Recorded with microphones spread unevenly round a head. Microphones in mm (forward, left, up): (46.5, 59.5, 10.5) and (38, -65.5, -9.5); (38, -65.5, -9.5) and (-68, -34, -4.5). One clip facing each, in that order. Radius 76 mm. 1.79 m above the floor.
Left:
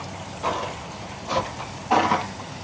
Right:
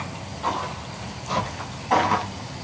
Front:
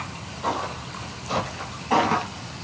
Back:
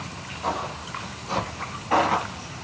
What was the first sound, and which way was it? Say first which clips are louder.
Footsteps: even, front 1 dB; 75° left.